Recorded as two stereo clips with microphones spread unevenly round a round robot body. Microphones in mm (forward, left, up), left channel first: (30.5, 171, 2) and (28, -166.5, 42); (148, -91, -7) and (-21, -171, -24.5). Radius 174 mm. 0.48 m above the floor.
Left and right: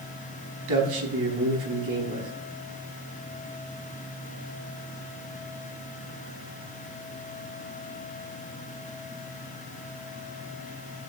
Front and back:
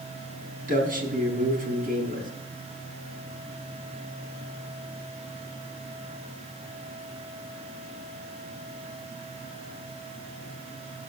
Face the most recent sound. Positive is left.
turn(degrees=-115)